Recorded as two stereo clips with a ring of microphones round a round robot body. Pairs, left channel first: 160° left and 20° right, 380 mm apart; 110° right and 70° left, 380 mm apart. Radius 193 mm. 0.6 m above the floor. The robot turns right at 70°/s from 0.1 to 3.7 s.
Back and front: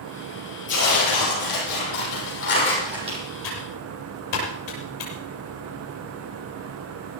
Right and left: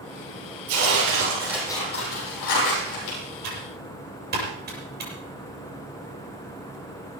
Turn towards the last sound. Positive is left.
turn(degrees=135)